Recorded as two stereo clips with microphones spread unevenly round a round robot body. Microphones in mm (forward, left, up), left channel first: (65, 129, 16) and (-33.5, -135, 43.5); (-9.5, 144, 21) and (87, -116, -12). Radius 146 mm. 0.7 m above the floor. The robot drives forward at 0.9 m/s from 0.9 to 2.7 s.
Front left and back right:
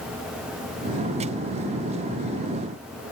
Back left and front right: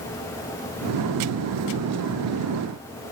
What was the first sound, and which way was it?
Only background noise.